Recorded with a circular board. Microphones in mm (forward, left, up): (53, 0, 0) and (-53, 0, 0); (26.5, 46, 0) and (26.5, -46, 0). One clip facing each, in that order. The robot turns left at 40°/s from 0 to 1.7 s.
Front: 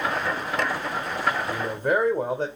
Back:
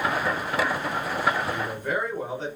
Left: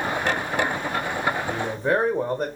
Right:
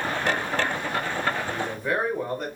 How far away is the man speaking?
About 0.8 m.